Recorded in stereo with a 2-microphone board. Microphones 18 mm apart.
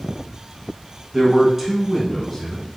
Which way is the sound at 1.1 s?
30° right (ahead or behind).